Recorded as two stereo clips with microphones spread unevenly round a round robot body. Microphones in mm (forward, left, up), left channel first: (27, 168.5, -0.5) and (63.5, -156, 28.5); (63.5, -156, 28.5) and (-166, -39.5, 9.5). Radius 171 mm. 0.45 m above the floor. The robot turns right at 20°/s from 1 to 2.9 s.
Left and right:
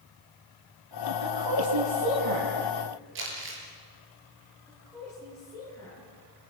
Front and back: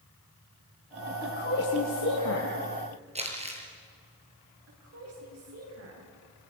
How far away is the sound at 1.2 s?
About 3.5 m.